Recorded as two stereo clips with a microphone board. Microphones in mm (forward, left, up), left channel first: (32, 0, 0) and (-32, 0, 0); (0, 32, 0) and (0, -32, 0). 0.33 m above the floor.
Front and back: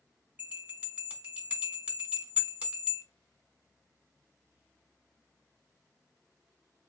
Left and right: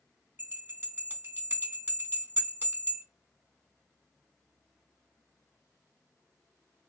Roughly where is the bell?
Behind right.